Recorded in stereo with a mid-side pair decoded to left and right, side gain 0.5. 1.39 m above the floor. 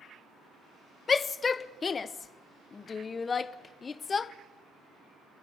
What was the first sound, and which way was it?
A shout, 35° left.